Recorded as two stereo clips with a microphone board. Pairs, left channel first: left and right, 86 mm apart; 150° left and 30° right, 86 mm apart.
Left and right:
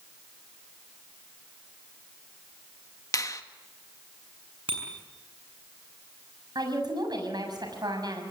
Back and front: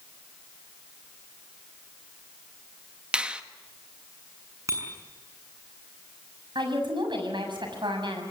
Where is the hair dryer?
I don't hear a hair dryer.